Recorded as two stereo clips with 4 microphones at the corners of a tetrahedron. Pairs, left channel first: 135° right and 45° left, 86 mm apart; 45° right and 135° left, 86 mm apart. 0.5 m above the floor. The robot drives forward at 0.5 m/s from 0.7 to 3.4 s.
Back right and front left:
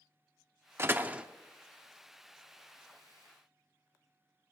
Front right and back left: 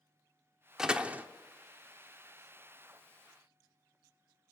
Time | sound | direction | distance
0.8 | a door slam | 60° left | 0.6 m